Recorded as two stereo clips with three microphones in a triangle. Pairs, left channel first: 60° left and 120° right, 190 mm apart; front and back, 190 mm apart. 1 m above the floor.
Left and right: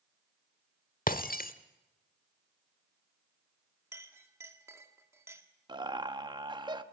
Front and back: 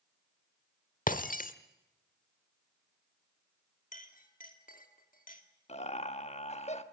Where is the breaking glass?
30° left, 1.0 m.